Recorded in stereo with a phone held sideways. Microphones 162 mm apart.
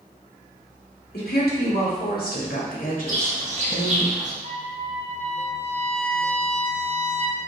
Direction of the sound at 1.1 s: 75° left (ahead or behind).